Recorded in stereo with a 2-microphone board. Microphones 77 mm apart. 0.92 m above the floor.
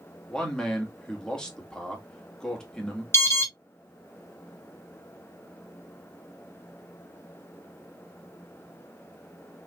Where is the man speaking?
10° left (ahead or behind), 1.6 m.